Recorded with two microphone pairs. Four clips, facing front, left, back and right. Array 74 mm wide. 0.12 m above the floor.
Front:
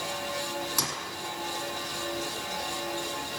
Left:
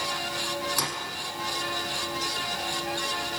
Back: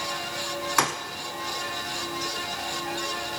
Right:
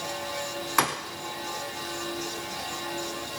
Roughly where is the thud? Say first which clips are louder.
Right 6 dB, back 9 dB; behind right.